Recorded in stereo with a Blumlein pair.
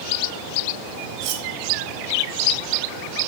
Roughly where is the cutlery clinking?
Ahead right.